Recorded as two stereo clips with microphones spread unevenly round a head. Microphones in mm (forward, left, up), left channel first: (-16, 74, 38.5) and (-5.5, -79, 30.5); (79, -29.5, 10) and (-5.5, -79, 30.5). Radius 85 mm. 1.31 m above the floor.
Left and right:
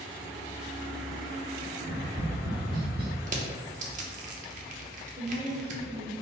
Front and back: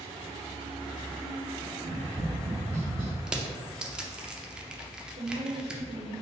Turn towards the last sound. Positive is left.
turn(degrees=-140)